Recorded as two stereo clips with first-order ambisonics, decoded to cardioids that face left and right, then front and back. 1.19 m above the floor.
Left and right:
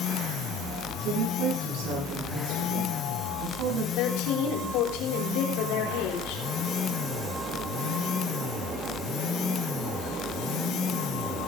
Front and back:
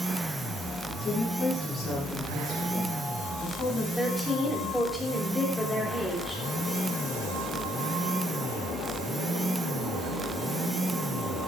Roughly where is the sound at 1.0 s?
Right.